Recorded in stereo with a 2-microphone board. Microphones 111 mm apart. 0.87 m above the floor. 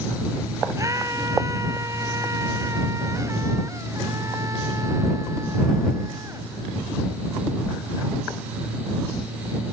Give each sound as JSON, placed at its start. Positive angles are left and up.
{"t": 0.8, "sound": "a scream", "side_deg": -30}